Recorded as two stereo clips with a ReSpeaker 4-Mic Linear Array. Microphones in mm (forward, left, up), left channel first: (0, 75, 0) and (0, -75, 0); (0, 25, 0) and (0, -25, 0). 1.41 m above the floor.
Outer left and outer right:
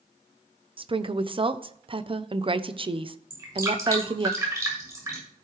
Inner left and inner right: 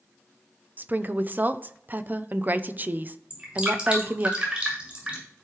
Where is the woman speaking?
35° right (ahead or behind), 0.7 m.